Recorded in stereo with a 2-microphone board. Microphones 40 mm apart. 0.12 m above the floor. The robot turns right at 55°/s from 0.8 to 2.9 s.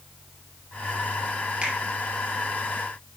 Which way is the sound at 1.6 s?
35° right (ahead or behind).